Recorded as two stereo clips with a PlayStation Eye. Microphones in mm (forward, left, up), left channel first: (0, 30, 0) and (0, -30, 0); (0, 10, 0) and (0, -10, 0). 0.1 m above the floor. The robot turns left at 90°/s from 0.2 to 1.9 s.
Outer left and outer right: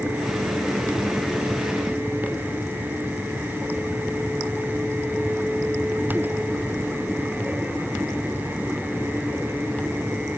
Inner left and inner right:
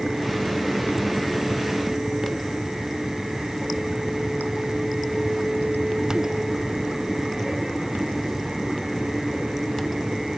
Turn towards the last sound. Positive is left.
No sound to turn to.